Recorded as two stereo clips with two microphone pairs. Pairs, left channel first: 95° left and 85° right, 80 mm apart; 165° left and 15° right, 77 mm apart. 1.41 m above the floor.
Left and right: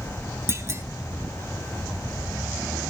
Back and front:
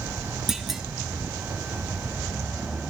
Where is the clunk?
95° right, 1.0 m.